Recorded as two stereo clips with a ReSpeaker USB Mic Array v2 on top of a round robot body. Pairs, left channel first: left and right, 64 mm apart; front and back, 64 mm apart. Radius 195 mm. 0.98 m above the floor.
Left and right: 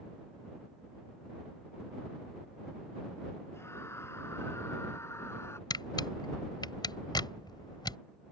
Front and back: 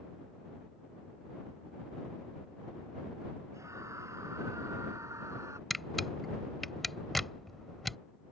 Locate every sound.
3.5 s a scream: 140° left
5.7 s a camera shutter: 90° left